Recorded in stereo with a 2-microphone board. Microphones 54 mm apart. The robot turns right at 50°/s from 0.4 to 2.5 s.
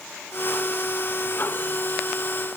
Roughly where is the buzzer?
No buzzer in this recording.